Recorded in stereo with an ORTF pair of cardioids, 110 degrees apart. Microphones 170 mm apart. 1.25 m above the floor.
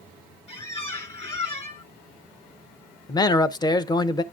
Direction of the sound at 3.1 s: 25° left.